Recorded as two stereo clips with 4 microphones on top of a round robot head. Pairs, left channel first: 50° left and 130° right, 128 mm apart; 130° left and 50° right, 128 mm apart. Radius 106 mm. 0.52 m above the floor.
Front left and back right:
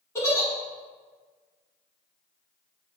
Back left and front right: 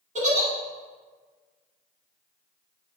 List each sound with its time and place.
0.1 s a giggle: 20° right, 1.0 m